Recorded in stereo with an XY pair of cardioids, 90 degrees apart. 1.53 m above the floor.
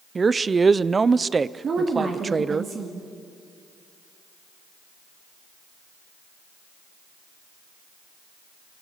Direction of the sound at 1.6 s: 50° right.